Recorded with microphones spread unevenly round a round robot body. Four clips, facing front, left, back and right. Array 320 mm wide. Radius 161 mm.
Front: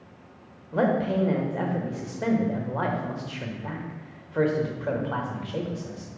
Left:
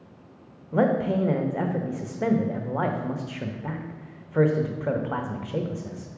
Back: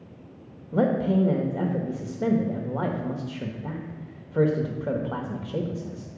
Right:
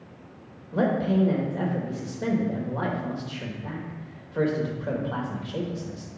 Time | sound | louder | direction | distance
0.7 | a man speaking | left 1 dB, back 1 dB | 125° left | 0.9 m